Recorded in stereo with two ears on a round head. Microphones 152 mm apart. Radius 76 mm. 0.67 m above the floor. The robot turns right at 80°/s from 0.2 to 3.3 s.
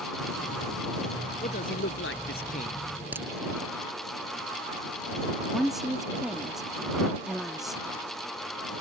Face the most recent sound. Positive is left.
turn(degrees=0)  # may be behind; listen again after turning